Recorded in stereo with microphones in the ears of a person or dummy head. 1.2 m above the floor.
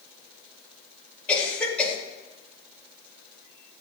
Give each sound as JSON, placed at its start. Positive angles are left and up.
{"t": 1.3, "sound": "a cough", "side_deg": 5, "distance_m": 2.5}